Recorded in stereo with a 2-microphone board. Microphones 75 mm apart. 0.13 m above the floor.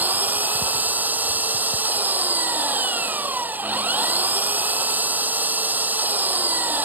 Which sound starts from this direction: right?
An engine running, at 0.0 s.